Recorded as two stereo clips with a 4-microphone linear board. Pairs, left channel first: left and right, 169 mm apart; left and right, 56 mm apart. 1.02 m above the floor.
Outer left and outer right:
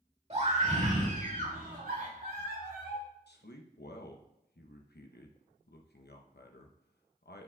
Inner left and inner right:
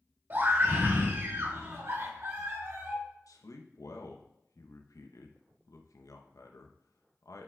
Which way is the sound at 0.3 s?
40° right (ahead or behind).